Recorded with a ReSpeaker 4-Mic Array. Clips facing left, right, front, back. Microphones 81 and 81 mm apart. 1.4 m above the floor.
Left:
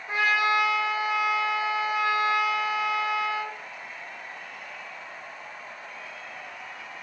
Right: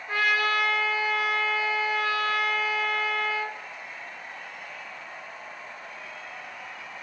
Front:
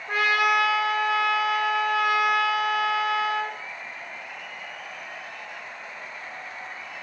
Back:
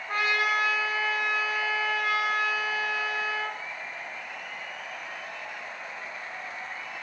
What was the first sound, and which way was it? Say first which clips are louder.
A trumpet: left 1 dB, front 5 dB; 20° left.